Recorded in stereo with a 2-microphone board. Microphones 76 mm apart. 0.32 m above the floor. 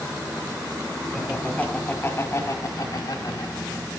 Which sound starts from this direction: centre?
Laughter, at 1.1 s.